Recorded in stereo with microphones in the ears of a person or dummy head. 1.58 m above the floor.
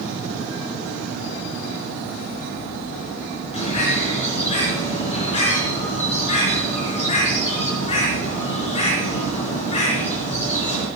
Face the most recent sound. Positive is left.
turn(degrees=40)  # may be behind; listen again after turning